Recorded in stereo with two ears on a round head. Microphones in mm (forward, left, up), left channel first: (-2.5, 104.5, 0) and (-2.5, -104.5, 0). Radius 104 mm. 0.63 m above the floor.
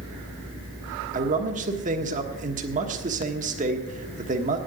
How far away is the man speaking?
About 1.3 m.